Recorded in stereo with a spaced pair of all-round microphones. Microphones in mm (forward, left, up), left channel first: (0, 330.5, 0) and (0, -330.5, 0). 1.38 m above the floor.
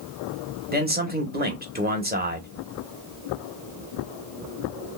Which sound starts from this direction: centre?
A man speaking, at 0.7 s.